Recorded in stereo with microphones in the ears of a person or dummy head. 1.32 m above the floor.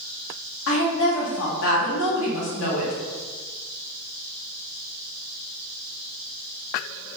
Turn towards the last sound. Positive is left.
turn(degrees=80)